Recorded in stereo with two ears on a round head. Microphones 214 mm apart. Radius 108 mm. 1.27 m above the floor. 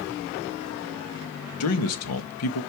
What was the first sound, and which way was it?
A man speaking, 75° left (ahead or behind).